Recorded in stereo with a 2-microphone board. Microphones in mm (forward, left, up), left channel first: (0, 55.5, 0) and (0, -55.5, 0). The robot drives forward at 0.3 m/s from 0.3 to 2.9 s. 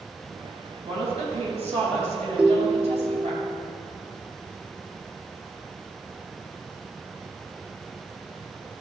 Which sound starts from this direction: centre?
A ringtone, at 2.4 s.